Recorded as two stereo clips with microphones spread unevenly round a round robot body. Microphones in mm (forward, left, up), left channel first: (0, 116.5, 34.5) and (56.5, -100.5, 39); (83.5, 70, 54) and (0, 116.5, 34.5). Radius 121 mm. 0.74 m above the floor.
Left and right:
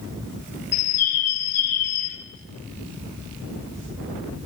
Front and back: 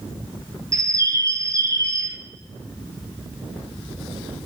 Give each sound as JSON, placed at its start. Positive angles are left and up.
{"t": 0.7, "sound": "a bird", "azimuth_deg": 95, "distance_m": 3.0}